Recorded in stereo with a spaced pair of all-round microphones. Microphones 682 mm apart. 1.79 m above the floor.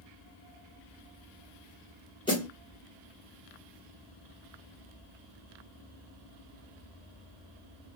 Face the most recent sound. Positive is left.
turn(degrees=5)  # may be behind; listen again after turning